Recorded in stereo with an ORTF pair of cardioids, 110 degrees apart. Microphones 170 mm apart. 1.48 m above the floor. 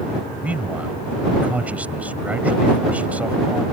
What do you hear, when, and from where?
0.4 s a man speaking: 10° right